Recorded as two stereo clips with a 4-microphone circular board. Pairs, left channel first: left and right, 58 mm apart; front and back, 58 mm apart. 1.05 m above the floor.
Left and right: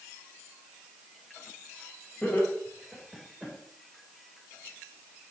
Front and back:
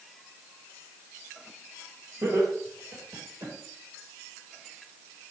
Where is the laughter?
175° left, 4.5 m; by 3.5 s 170° right, 3.5 m.